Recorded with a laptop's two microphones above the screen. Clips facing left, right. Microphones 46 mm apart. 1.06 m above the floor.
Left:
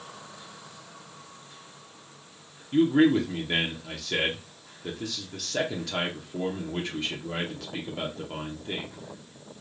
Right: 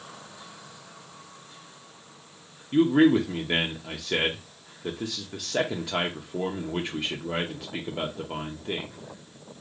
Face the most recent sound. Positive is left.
turn(degrees=-15)  # may be behind; listen again after turning